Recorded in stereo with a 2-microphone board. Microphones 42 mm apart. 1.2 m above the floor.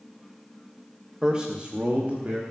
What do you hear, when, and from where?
1.2 s a man speaking: 15° right (ahead or behind), 1.1 m; by 2.4 s 35° right (ahead or behind), 3 m